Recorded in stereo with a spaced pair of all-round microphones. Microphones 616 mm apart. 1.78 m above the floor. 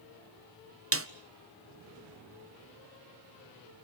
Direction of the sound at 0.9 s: 25° right (ahead or behind).